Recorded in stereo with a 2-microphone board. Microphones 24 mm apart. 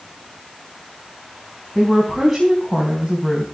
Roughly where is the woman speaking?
Centre.